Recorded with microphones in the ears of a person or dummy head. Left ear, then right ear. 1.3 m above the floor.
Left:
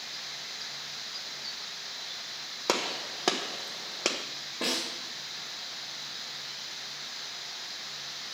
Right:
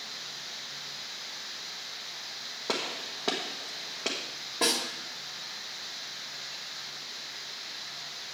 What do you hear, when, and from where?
2.7 s a gunshot: 70° left (ahead or behind), 1.2 m
4.6 s a snare drum: 20° right (ahead or behind), 1.6 m